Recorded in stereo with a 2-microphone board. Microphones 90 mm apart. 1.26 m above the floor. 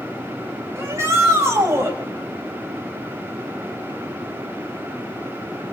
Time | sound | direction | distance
0.8 | a shout | 30° right (ahead or behind) | 8.5 m